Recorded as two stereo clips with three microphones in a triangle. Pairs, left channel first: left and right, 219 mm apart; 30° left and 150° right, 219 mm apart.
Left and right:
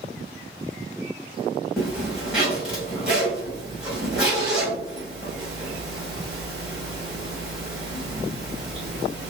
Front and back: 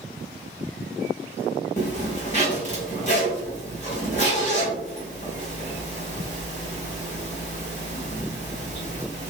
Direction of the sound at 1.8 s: 5° right.